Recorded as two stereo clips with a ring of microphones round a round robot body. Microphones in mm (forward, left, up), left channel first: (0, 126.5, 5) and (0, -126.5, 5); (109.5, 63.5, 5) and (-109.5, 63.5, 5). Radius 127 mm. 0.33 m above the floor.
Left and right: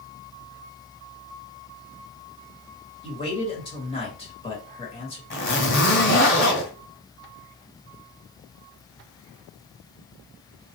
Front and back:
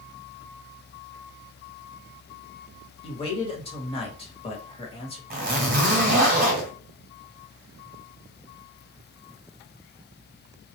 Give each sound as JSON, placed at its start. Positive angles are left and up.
{"t": 3.0, "sound": "a man speaking", "azimuth_deg": 40, "distance_m": 1.3}
{"t": 5.3, "sound": "a zipper", "azimuth_deg": 135, "distance_m": 1.6}